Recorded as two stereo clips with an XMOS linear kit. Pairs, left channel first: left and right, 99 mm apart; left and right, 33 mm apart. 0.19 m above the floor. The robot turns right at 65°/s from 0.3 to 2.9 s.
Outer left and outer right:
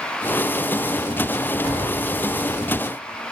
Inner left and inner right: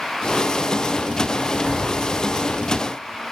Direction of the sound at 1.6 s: 5° right.